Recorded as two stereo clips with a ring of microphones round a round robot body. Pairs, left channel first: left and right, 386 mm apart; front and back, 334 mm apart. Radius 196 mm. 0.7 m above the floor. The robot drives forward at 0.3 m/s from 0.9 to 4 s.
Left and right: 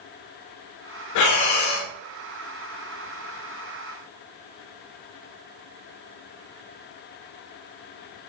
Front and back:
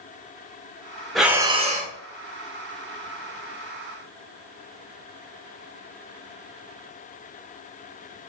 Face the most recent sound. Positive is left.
turn(degrees=160)